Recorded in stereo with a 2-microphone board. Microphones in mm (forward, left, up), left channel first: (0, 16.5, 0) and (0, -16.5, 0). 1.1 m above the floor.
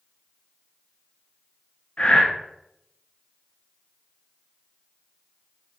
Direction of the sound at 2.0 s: 35° left (ahead or behind).